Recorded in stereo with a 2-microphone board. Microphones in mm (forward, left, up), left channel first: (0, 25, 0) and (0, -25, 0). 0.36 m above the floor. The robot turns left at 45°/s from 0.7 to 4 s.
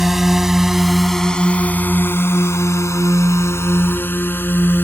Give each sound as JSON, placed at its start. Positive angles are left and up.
{"t": 0.0, "sound": "a drone", "side_deg": -5}